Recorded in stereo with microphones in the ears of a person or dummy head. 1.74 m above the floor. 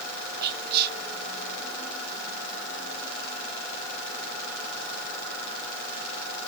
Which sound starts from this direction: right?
Whispering, at 0.4 s.